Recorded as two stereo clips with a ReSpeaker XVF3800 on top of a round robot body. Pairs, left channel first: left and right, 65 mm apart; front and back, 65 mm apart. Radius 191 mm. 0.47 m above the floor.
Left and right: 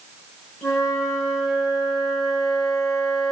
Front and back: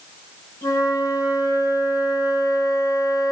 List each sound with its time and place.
0.6 s a flute: 50° left, 5 m